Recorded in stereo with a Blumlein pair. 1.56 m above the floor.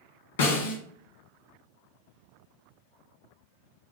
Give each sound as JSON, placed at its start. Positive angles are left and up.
{"t": 0.4, "sound": "a snare drum", "azimuth_deg": 65, "distance_m": 1.3}